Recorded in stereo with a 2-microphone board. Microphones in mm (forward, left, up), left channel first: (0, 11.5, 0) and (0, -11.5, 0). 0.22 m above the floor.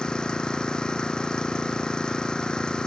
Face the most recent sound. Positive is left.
turn(degrees=35)  # may be behind; listen again after turning